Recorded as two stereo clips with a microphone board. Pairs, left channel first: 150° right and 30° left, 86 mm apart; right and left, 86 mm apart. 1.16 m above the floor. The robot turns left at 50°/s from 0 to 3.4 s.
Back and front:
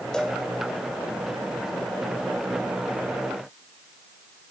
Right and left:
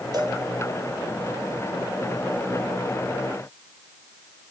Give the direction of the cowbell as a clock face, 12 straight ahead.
8 o'clock.